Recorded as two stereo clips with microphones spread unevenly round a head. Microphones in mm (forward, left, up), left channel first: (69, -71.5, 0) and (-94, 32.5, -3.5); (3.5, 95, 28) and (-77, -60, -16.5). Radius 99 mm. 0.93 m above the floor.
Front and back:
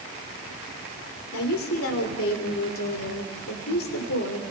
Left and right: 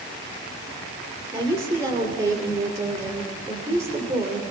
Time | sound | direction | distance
1.3 | a woman speaking | 45° right | 3 m